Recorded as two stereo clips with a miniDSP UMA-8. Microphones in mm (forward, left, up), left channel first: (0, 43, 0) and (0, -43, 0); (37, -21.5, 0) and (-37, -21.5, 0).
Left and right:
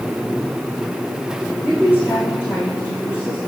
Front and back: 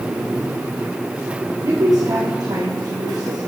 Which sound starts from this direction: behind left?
A woman speaking, at 1.6 s.